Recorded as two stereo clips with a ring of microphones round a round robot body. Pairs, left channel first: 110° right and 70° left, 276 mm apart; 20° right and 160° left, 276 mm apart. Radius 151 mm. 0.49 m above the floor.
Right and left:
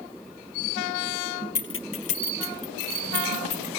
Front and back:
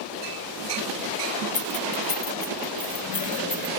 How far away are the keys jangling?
About 0.9 m.